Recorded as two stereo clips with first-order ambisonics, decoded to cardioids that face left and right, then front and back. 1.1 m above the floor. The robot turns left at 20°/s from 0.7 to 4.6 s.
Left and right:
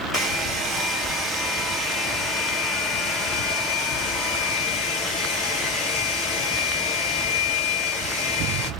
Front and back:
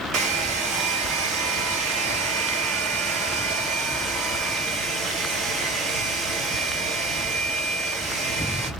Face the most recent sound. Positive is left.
turn(degrees=120)